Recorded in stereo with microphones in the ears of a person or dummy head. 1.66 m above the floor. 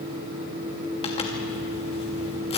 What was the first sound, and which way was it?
A zipper, 30° left (ahead or behind).